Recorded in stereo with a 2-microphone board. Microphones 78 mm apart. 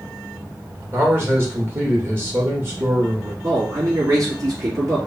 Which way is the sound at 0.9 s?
30° right (ahead or behind).